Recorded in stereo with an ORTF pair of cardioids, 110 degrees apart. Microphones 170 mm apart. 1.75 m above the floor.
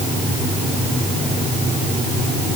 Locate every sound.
Only background noise.